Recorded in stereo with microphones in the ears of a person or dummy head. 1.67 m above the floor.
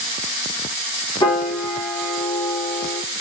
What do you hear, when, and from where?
1.2 s a piano: 30° left (ahead or behind), 1.6 m